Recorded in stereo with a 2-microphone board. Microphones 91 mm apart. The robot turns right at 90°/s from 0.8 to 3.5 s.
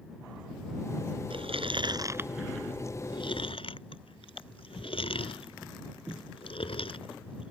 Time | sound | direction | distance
1.3 | chewing | 70° right (ahead or behind) | ?